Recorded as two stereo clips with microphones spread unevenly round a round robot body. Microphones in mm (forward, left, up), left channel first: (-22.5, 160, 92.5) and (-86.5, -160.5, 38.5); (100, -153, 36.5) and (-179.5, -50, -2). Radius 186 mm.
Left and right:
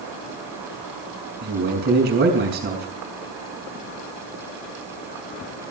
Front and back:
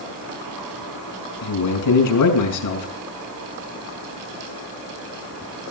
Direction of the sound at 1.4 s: 40° right.